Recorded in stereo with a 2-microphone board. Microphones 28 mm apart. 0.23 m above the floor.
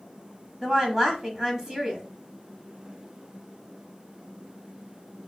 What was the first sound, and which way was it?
A woman speaking, 20° right (ahead or behind).